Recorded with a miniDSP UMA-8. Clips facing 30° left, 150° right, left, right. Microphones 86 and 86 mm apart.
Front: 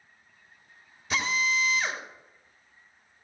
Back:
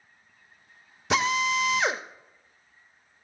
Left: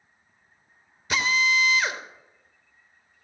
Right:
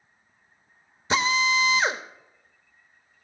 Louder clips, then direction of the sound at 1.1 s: Back 4 dB, right 1 dB; 150° right.